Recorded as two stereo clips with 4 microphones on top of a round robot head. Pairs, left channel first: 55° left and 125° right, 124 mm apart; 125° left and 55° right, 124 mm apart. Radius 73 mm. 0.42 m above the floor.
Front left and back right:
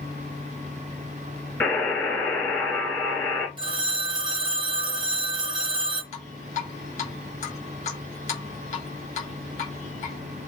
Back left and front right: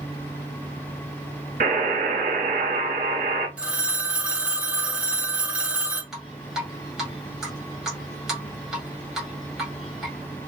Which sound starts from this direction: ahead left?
Dripping, at 6.1 s.